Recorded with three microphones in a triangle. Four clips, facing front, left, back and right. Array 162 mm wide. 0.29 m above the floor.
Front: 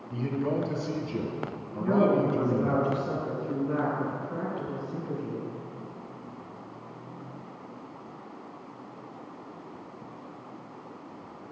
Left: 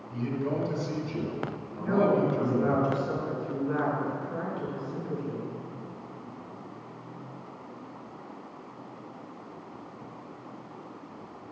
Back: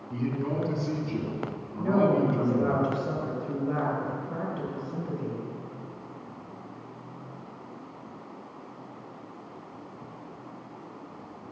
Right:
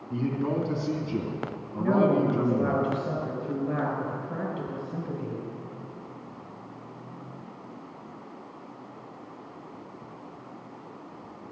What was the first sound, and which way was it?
A man speaking, 95° right.